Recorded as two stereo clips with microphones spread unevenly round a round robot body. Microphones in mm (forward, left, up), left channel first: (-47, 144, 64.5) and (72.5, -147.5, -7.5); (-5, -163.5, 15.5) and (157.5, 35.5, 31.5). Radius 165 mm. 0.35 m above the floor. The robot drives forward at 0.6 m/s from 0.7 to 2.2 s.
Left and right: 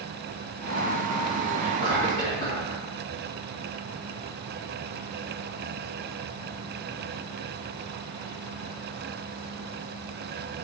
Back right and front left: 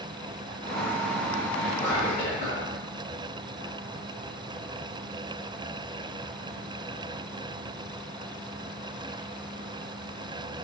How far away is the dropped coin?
I don't hear a dropped coin.